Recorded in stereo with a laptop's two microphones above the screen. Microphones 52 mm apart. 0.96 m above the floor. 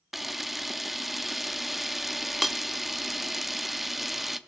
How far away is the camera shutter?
About 0.6 m.